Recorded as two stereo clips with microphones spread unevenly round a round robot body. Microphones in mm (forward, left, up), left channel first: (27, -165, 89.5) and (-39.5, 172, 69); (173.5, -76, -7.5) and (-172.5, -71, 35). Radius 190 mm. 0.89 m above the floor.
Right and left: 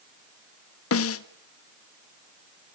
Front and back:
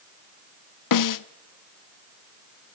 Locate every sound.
0.9 s a snare drum: 25° right, 1.2 m